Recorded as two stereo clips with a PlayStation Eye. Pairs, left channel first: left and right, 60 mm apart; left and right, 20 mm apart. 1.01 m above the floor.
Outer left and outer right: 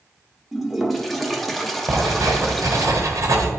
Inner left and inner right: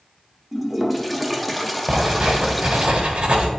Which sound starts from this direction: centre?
A toilet flushing, at 0.5 s.